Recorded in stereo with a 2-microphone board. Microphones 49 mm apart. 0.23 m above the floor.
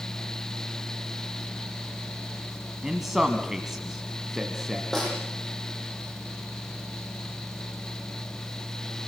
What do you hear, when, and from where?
2.8 s a man speaking: 10° right (ahead or behind), 1.7 m
4.9 s a snare drum: 5° left (ahead or behind), 9 m